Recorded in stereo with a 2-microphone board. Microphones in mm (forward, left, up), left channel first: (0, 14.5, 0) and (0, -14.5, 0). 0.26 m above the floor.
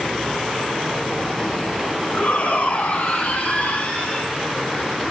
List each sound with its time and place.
2.1 s a shout: 50° left (ahead or behind), 3 m; by 4.3 s 40° left (ahead or behind), 2.5 m